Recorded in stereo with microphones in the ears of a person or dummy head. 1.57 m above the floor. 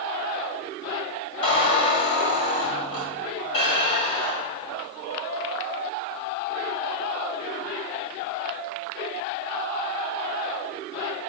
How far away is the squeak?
About 1.9 m.